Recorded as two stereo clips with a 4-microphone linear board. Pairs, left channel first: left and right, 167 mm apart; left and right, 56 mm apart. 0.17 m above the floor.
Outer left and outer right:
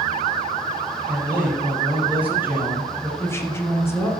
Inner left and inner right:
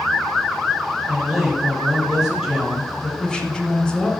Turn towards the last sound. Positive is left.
turn(degrees=15)  # may be behind; listen again after turning